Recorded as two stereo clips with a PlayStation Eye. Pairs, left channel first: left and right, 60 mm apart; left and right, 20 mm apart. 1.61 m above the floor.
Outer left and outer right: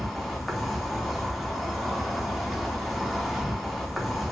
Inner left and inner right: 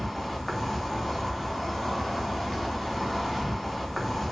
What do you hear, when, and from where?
0.0 s an insect: centre (ahead or behind), 0.7 m